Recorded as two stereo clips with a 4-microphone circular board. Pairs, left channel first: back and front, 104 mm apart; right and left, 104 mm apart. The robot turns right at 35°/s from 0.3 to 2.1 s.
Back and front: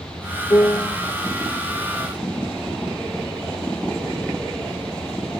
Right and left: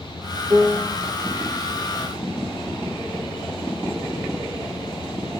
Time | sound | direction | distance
0.5 | a piano | 145° left | 0.9 m